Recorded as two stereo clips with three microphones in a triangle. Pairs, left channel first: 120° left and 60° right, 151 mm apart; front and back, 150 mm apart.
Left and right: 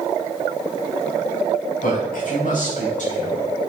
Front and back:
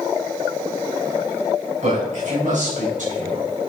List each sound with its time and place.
1.8 s a man speaking: 145° left, 5.5 m; by 3.7 s 155° left, 4.5 m